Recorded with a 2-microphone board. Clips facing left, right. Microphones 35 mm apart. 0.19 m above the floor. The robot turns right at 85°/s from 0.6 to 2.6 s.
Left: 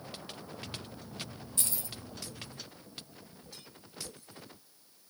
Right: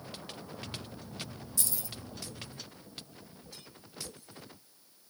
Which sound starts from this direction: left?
Keys jangling, at 1.6 s.